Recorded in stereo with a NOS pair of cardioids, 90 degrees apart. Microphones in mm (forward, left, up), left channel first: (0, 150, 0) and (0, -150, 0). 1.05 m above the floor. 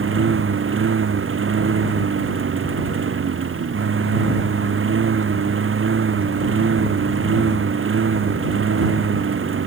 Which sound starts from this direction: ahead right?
A lawn mower, at 0.0 s.